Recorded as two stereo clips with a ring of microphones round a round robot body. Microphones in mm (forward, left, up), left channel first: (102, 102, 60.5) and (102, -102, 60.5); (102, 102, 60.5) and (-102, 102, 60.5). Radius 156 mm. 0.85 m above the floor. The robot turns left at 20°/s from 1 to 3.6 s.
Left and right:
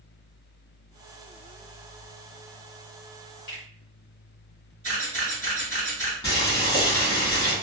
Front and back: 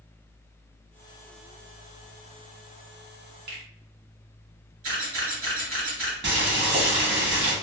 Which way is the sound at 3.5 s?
140° left.